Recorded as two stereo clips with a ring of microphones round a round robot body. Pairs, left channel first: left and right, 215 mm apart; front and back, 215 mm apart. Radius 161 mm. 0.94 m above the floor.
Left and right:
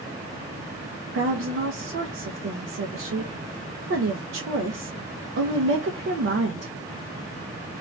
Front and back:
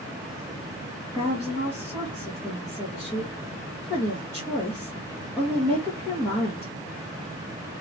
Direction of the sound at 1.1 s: 80° right.